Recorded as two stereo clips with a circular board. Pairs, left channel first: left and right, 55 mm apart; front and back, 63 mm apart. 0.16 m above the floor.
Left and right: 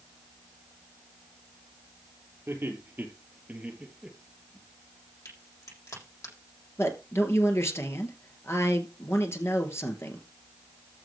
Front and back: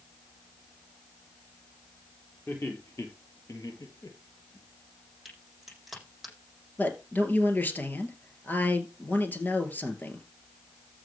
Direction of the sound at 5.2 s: 95° left.